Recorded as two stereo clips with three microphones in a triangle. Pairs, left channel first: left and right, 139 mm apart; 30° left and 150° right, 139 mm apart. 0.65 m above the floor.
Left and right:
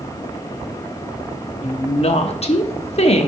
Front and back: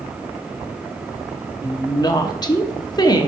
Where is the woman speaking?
80° left, 0.9 m.